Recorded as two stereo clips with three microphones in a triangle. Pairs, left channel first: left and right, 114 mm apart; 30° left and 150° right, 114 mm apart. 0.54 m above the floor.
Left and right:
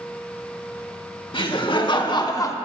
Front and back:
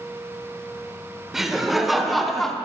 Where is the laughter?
125° left, 1.4 m; by 2.5 s 115° left, 0.7 m.